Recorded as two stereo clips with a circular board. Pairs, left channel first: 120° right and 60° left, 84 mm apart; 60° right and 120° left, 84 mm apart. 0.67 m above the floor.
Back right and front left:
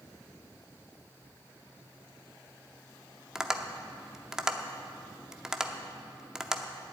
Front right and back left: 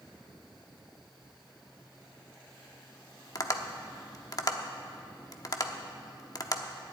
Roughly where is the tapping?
Ahead.